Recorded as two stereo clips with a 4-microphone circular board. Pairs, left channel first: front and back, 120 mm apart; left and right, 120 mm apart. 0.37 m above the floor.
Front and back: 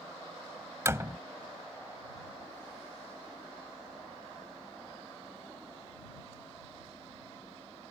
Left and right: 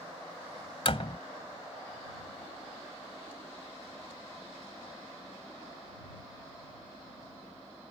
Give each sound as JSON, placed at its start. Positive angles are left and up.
{"t": 0.8, "sound": "a door slam", "azimuth_deg": 115}